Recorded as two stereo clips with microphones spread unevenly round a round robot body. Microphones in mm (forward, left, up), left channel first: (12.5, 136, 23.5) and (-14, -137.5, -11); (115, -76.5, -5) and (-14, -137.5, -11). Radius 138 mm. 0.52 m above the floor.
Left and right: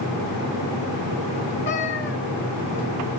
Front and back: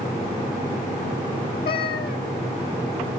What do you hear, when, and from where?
1.6 s a cat meowing: 30° left, 3.5 m